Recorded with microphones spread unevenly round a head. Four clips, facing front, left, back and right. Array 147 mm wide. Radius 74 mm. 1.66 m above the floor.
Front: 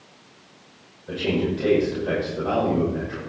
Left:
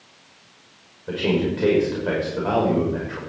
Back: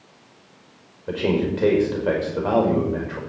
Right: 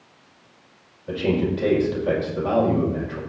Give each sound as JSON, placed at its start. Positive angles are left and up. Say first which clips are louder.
{"t": 1.1, "sound": "a man speaking", "louder": "even, back 2 dB", "azimuth_deg": 165, "distance_m": 5.5}